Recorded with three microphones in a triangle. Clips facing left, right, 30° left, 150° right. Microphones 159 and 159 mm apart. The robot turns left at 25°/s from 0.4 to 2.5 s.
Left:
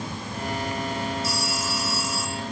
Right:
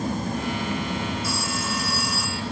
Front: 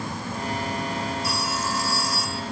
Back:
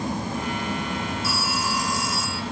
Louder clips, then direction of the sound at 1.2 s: Right 1 dB, back 1 dB; 65° right.